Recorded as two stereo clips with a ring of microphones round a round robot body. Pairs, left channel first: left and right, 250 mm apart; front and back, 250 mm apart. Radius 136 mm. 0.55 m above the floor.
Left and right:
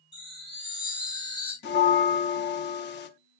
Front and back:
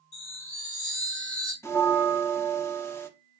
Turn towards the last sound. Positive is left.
turn(degrees=75)